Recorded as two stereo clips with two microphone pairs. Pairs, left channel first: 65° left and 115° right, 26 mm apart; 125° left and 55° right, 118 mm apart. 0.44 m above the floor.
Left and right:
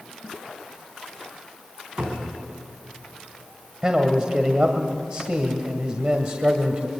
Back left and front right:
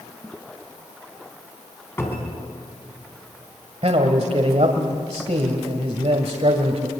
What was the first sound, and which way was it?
A cupboard door, 165° right.